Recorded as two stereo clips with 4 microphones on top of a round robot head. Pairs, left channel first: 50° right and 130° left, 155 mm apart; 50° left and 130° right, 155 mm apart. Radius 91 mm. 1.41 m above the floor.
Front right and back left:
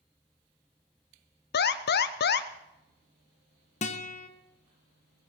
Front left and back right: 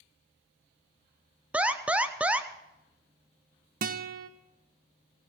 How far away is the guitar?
About 0.9 m.